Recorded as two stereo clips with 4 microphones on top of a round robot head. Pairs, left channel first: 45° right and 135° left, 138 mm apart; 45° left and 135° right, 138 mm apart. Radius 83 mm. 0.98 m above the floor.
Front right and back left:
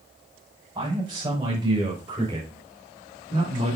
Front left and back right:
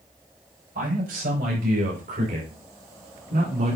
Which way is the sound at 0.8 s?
160° right.